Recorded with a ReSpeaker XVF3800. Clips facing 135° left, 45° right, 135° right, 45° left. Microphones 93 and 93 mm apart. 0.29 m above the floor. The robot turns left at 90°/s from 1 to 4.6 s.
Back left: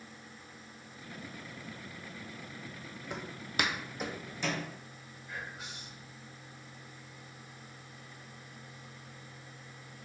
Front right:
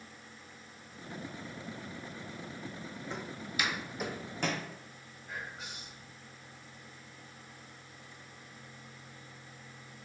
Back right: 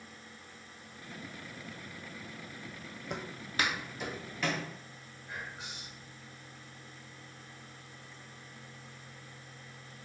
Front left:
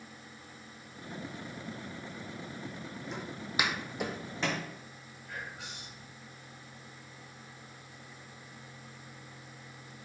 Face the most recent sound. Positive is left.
turn(degrees=-75)